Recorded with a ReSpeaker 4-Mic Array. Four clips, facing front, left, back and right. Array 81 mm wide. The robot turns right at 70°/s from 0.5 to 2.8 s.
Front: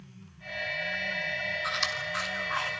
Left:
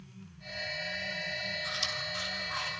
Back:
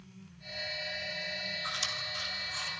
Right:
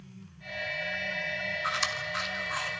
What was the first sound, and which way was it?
Chewing, 75° right.